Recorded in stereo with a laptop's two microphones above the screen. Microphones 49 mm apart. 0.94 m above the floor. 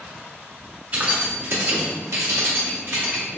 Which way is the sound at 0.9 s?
35° right (ahead or behind).